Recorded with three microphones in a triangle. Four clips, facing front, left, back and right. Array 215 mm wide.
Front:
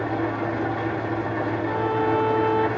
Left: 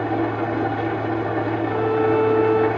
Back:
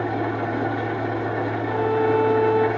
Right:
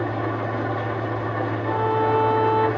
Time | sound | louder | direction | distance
0.0 | an engine running | left 3 dB, back 1 dB | 95° left | 1.0 m
1.6 | a violin | left 1 dB, back 3 dB | 95° right | 0.6 m